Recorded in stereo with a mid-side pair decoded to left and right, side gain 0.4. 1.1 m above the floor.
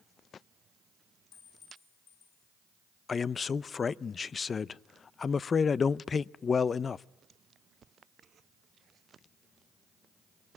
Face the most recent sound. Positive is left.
turn(degrees=45)